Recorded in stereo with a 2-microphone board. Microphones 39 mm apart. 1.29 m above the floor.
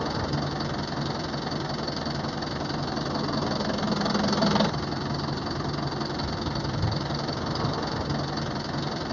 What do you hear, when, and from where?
0.0 s an engine running: 5° left (ahead or behind)